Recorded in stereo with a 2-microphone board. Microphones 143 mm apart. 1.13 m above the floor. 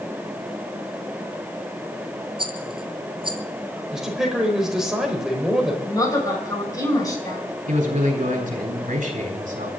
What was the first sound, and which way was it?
A rattle, 35° right (ahead or behind).